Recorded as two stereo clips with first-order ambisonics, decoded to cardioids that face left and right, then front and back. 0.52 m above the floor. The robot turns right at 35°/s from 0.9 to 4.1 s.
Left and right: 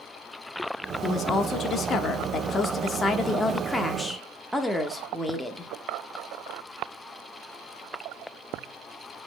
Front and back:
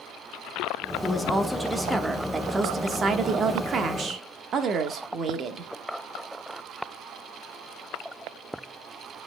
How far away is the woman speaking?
About 0.9 m.